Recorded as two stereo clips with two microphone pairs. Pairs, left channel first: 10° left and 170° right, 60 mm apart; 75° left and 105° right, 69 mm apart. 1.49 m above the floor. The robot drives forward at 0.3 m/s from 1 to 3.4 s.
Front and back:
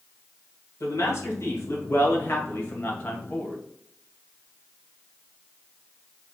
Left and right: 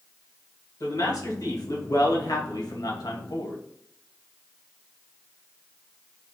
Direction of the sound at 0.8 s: 50° left.